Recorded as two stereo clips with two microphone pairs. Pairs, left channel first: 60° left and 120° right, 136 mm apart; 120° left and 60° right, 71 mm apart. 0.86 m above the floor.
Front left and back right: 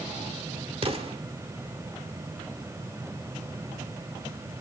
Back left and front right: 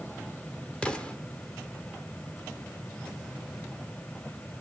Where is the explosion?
165° right, 1.3 m.